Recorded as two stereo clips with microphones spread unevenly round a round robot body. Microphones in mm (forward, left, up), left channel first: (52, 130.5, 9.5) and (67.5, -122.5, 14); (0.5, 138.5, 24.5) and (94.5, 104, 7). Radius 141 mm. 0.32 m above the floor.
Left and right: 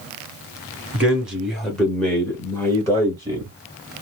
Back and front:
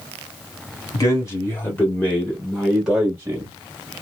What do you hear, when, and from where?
0.9 s a man speaking: 170° right, 1.3 m; by 3.6 s 30° left, 1.5 m